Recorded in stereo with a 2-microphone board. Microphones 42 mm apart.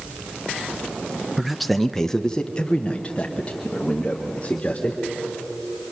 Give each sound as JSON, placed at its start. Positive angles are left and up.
{"t": 1.4, "sound": "a man speaking", "side_deg": 0, "distance_m": 1.0}